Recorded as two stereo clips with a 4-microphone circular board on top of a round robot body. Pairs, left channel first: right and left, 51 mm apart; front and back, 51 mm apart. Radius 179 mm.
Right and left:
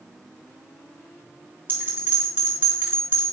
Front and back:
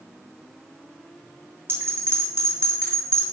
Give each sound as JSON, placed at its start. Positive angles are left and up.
{"t": 1.7, "sound": "a bell", "azimuth_deg": 140, "distance_m": 3.5}